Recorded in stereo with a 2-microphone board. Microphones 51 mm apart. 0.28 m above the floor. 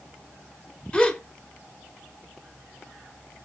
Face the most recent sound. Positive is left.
turn(degrees=20)  # may be behind; listen again after turning